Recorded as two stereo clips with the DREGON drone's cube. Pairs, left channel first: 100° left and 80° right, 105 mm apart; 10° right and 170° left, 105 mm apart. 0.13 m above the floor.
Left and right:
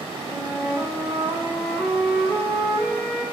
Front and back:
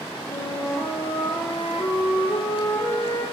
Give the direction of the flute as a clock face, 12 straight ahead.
12 o'clock.